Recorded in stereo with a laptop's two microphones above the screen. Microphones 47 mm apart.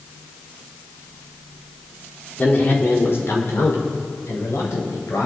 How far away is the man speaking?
About 2.5 m.